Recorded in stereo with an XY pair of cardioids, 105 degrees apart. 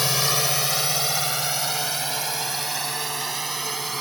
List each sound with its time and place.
0.0 s a drone: 15° left; by 4.0 s 25° right